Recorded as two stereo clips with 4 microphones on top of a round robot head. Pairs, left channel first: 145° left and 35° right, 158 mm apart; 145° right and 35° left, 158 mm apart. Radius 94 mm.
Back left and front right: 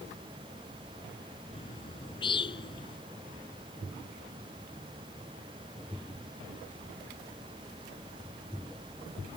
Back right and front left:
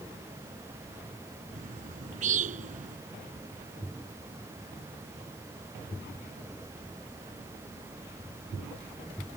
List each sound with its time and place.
1.5 s a bird: 80° left